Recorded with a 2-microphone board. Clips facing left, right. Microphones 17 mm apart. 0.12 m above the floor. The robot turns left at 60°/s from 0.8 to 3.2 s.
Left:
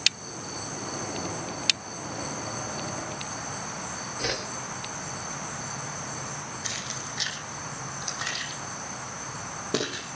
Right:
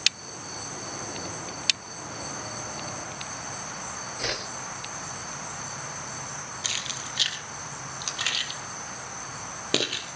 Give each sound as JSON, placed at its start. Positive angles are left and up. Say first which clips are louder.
{"t": 4.2, "sound": "a whoosh", "louder": "even", "side_deg": -30, "distance_m": 5.0}
{"t": 6.6, "sound": "keys jangling", "louder": "right 4 dB", "side_deg": -55, "distance_m": 2.5}